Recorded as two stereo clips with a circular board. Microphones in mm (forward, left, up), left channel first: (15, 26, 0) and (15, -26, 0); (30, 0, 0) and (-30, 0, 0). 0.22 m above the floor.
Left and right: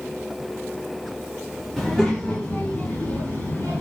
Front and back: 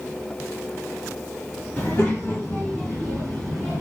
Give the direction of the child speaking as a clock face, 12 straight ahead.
12 o'clock.